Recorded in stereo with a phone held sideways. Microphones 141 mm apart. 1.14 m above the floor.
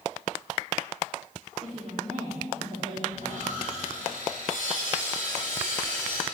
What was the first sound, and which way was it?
A woman speaking, 55° right (ahead or behind).